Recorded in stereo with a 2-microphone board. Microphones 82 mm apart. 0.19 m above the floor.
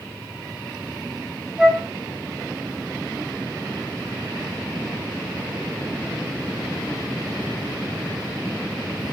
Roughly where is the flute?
Centre.